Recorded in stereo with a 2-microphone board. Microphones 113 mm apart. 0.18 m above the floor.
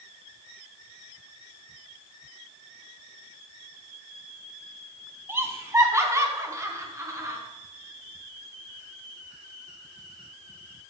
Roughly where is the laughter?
Right.